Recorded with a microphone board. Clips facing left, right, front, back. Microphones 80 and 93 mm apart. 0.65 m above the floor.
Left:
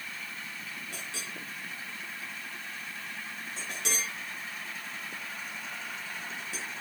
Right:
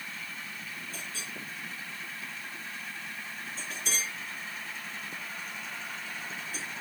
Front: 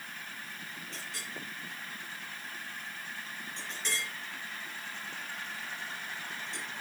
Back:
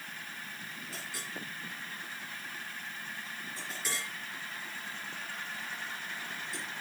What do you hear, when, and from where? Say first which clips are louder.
0.9 s a clink: even, back 1 dB; 95° left, 6 m